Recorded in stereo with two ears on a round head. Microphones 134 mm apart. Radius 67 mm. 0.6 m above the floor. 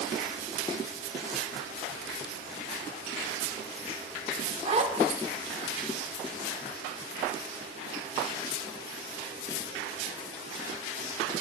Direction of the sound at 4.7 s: 40° right (ahead or behind).